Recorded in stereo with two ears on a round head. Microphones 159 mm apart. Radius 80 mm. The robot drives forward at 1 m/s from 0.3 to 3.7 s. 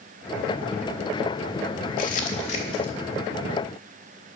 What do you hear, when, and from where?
2.0 s crumpling: 50° left (ahead or behind), 1.4 m; by 2.9 s 30° left (ahead or behind), 2 m